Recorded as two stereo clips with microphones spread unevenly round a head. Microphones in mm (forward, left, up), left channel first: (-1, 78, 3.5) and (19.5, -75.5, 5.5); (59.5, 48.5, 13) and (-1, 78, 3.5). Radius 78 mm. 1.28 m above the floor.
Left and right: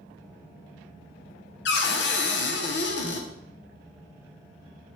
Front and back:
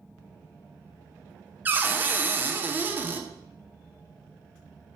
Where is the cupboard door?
95° left, 1.0 m.